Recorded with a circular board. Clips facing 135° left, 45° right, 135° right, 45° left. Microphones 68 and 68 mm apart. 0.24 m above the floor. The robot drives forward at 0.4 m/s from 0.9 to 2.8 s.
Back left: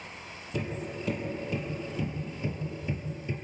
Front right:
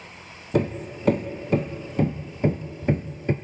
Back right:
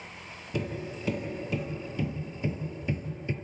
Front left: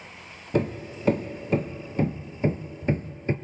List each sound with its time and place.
0.5 s hammering: 5° right, 2 m